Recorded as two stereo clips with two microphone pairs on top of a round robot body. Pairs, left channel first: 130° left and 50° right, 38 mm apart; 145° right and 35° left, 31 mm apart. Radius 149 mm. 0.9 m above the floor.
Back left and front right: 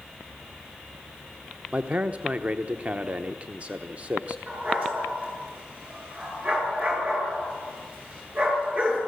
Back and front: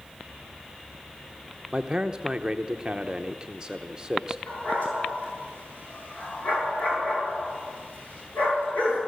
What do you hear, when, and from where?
1.7 s a man speaking: 30° right, 1.1 m
4.5 s a dog barking: 105° right, 8 m